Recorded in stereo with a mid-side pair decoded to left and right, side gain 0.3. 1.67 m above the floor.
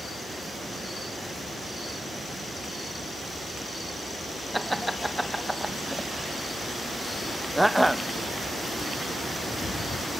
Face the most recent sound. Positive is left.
turn(degrees=-5)